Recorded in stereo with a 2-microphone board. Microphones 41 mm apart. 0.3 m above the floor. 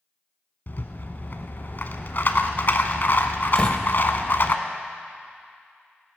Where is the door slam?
20° left (ahead or behind), 0.9 m.